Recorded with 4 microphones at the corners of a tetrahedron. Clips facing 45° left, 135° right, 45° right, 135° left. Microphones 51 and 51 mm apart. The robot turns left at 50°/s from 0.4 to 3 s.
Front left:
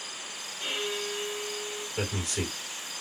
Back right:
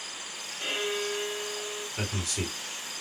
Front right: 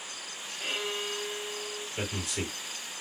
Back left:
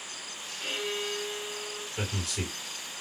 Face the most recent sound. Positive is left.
turn(degrees=-15)